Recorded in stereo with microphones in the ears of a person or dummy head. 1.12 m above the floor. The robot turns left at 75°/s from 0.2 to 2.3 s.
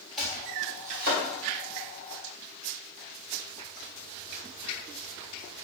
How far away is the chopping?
About 1.3 m.